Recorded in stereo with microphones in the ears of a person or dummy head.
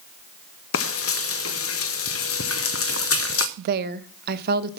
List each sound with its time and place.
0.7 s frying: 70° left (ahead or behind), 0.7 m
3.6 s a woman speaking: 55° right (ahead or behind), 0.7 m